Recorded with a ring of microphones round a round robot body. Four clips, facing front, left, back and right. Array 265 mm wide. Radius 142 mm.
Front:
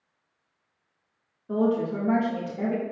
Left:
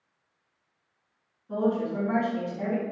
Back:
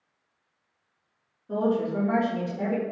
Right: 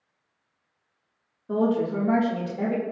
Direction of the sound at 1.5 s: 70° right.